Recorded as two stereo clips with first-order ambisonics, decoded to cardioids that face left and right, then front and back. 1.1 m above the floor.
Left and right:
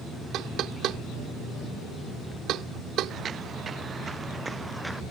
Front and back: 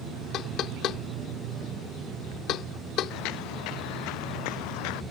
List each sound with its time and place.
0.3 s knocking: 45° right
3.1 s footsteps: 30° right; by 5.0 s 5° right